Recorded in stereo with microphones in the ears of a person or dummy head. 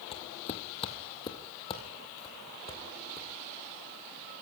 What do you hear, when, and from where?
0.1 s footsteps: 40° left (ahead or behind), 1.9 m; by 3.3 s 30° left (ahead or behind), 4.5 m